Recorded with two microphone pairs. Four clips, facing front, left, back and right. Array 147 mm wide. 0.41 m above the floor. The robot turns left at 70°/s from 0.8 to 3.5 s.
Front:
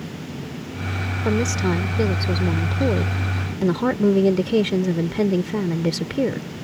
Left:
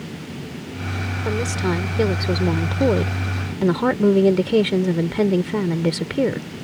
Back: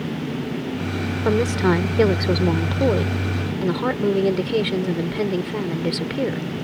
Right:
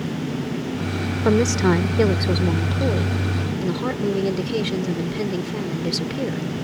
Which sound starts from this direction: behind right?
A woman speaking, at 1.2 s.